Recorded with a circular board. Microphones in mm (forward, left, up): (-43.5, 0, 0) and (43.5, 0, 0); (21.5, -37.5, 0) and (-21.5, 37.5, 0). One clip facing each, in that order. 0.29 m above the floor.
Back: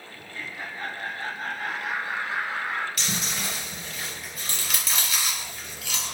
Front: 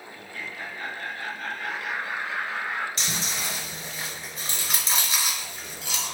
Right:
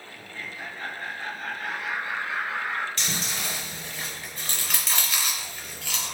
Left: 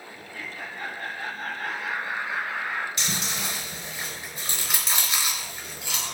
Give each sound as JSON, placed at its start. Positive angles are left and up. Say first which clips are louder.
{"t": 0.1, "sound": "laughter", "louder": "back 1 dB, even", "azimuth_deg": 110, "distance_m": 2.5}
{"t": 3.0, "sound": "chewing", "louder": "even, left 1 dB", "azimuth_deg": 55, "distance_m": 2.5}